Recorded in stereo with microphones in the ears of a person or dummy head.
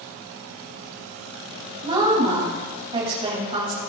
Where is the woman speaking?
30° right (ahead or behind), 2.5 m.